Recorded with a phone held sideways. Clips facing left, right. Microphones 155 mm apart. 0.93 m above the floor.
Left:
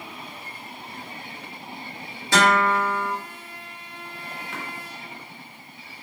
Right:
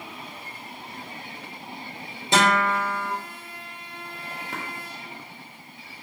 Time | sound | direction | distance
2.3 | a guitar | 20° right (ahead or behind) | 1.4 m
4.5 | tapping | 40° right (ahead or behind) | 0.7 m